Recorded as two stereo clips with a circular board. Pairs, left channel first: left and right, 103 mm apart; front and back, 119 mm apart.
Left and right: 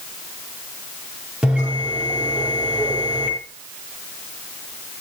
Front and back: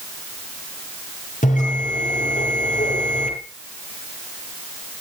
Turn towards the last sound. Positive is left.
turn(degrees=-10)